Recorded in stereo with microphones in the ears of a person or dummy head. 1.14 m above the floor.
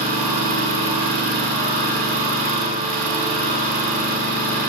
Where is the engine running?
40° right (ahead or behind), 1.7 m.